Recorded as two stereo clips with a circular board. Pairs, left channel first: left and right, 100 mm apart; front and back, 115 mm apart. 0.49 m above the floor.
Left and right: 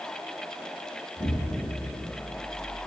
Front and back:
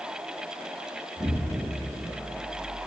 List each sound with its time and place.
1.2 s an explosion: 110° left, 1.1 m